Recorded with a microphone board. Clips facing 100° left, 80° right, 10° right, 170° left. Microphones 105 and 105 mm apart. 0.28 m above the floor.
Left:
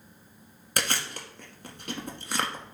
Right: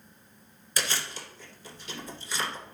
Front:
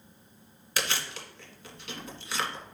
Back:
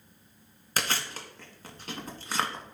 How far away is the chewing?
About 1.4 m.